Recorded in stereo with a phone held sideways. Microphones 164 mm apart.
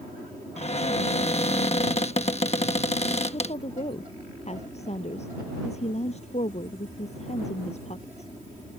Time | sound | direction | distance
0.6 | a cupboard door | 40° left (ahead or behind) | ?
3.3 | a woman speaking | 40° left (ahead or behind) | ?